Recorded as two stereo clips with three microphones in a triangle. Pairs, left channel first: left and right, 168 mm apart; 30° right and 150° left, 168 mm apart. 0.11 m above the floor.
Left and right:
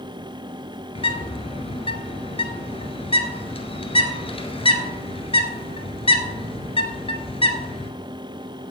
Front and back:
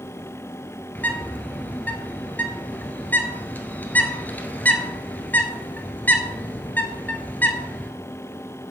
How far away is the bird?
About 1.5 m.